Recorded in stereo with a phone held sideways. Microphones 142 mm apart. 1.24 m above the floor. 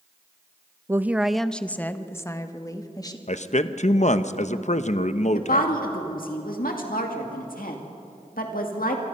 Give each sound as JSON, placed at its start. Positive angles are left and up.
{"t": 0.9, "sound": "a woman speaking", "side_deg": -20, "distance_m": 0.6}
{"t": 3.3, "sound": "a man speaking", "side_deg": 55, "distance_m": 0.9}
{"t": 5.3, "sound": "a woman speaking", "side_deg": 85, "distance_m": 2.0}